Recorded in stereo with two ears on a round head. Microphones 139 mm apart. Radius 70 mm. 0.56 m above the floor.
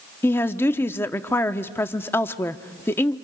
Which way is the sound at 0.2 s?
15° left (ahead or behind).